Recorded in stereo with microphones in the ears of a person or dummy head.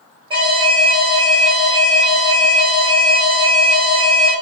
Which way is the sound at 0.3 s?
30° right (ahead or behind).